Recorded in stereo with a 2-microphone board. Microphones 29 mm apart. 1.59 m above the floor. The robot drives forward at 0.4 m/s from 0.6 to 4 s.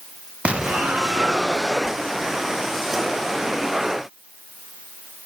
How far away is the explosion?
About 1.2 m.